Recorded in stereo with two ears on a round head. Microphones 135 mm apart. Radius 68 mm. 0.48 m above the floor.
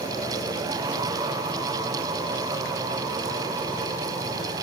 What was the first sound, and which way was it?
Only background noise.